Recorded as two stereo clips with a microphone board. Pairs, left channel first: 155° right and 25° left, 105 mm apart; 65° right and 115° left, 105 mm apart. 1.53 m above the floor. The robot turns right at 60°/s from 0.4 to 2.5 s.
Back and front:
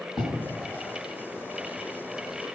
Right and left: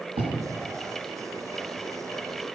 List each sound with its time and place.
0.2 s writing: 120° left, 6 m